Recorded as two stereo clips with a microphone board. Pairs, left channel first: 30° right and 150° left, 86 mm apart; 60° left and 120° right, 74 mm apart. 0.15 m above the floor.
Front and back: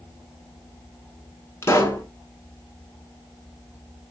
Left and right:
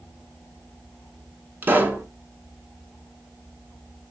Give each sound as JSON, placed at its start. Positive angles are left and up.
{"t": 1.6, "sound": "a pop", "azimuth_deg": -70, "distance_m": 0.9}